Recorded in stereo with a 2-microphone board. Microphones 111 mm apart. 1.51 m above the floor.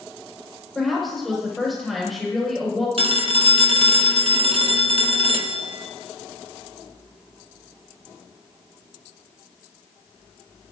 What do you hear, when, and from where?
0.8 s a woman speaking: centre (ahead or behind), 5 m
3.0 s a phone ringing: 55° right (ahead or behind), 1.1 m